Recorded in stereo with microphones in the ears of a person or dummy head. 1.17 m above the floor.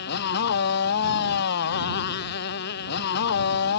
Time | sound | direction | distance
0.0 | a motorcycle | 50° left (ahead or behind) | ?